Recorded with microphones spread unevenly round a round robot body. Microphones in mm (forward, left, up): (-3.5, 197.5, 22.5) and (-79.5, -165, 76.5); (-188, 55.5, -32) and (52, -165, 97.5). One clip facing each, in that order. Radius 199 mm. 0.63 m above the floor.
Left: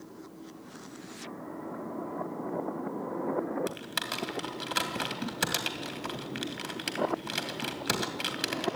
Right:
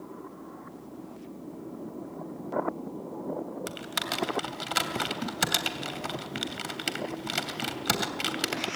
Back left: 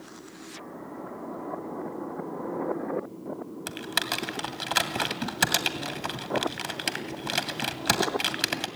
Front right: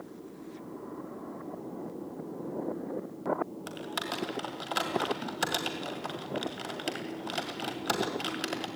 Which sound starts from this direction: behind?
Typing on a keyboard, at 3.7 s.